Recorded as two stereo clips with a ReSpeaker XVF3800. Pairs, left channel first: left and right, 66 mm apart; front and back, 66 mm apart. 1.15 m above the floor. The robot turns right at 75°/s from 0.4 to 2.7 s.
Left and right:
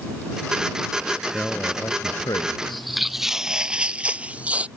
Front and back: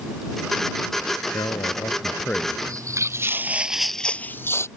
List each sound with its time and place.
1.3 s a man speaking: straight ahead; by 2.6 s 95° left
2.7 s footsteps: straight behind; by 4.7 s 25° right